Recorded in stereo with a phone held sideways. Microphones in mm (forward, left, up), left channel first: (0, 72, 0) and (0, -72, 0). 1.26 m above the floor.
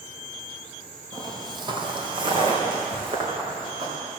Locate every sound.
1.1 s footsteps: 25° right (ahead or behind), 1.4 m; by 4.0 s 35° right (ahead or behind), 5 m